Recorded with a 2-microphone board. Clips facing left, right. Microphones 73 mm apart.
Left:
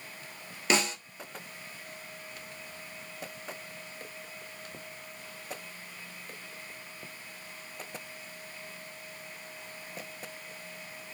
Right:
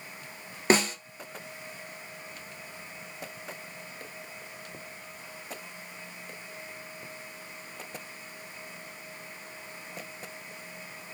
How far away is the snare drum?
About 1.5 m.